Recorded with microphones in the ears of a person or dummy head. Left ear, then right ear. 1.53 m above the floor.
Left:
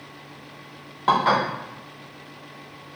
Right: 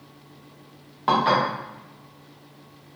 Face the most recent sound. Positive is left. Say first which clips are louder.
# left 1 dB
turn(degrees=5)  # may be behind; listen again after turning